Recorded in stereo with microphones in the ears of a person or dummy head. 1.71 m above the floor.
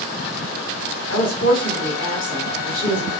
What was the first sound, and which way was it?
A woman speaking, 60° left (ahead or behind).